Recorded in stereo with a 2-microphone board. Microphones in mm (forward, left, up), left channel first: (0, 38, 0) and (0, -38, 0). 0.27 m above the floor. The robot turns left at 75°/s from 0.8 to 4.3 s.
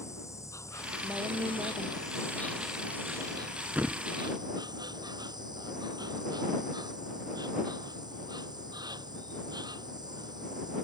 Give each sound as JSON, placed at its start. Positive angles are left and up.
{"t": 0.0, "sound": "an insect", "azimuth_deg": 140}
{"t": 1.0, "sound": "a woman speaking", "azimuth_deg": -45}
{"t": 3.8, "sound": "a thud", "side_deg": -25}